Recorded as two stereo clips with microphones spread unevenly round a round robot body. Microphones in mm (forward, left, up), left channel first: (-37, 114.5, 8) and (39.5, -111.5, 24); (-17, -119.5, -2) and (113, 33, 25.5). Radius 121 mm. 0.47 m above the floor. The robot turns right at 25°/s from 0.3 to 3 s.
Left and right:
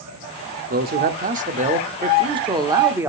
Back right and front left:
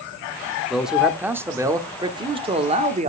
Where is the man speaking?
50° right, 1.2 m; by 3.1 s 5° left, 1.2 m.